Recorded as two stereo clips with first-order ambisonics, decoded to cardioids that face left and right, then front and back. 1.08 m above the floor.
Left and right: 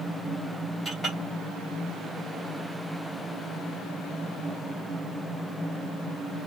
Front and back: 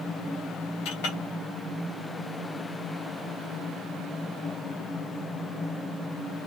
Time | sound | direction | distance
0.8 | a clink | 5° left | 2 m